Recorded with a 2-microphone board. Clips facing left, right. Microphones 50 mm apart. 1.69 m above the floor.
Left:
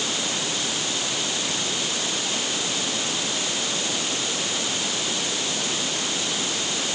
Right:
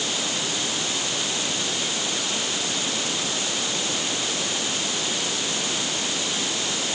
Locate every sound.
Only background noise.